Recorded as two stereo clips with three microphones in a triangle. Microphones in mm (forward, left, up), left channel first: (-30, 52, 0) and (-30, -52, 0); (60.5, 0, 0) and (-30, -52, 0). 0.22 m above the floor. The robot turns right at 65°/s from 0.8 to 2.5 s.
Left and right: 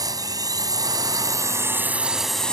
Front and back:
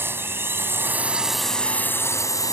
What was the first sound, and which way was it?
A drone, 100° right.